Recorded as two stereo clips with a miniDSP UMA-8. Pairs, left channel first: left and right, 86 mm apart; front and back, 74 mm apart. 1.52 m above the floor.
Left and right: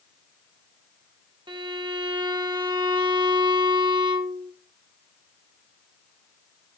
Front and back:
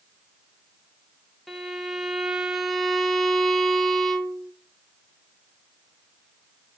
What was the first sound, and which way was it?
A violin, 90° right.